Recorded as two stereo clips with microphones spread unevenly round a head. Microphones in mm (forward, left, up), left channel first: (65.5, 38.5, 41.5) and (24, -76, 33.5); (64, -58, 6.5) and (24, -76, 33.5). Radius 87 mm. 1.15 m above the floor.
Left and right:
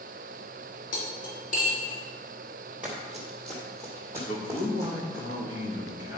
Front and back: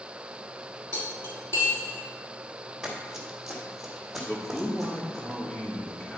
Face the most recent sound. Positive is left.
turn(degrees=95)